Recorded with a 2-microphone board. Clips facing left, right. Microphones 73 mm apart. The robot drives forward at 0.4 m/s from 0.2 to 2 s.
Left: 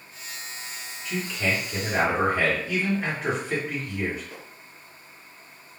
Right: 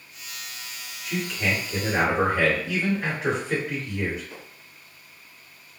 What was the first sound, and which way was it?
A man speaking, centre (ahead or behind).